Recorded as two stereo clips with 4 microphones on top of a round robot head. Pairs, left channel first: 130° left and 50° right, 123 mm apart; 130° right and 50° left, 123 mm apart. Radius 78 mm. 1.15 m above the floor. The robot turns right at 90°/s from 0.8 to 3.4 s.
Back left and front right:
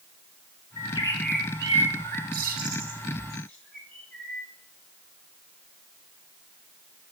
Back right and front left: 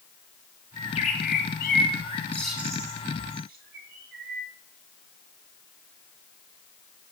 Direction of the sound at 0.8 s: 170° left.